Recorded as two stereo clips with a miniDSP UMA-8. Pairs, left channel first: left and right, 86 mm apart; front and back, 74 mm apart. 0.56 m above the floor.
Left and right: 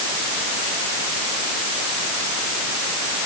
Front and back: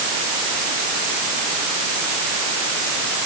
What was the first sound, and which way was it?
Only background noise.